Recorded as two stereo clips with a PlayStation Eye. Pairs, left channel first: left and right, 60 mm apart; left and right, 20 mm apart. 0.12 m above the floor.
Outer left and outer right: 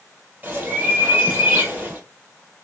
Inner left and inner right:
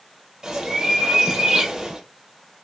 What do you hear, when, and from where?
0.4 s a bird: 30° right (ahead or behind), 2 m